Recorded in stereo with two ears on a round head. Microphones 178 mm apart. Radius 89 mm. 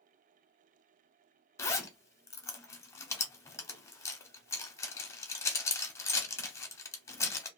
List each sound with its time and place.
1.6 s a zipper: 15° left (ahead or behind), 0.7 m